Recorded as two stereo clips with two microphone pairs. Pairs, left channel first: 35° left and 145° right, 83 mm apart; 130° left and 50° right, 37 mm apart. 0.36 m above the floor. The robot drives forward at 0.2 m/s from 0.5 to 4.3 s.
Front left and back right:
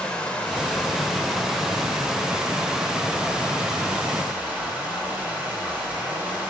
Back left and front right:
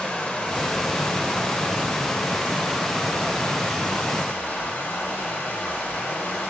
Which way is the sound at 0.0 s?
100° left.